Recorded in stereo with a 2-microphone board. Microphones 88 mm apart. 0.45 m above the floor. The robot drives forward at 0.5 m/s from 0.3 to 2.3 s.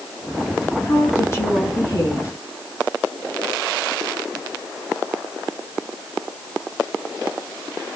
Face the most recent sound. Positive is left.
turn(degrees=30)  # may be behind; listen again after turning